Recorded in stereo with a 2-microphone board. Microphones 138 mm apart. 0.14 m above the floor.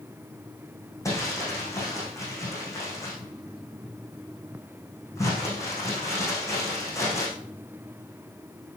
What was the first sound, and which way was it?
Crumpling, 20° left (ahead or behind).